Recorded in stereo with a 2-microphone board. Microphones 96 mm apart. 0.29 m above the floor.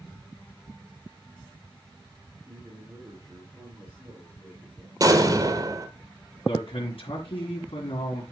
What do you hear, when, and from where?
2.5 s a man speaking: 25° right (ahead or behind), 4 m
5.0 s an explosion: 40° right (ahead or behind), 1.3 m
6.5 s a man speaking: 70° left (ahead or behind), 2.5 m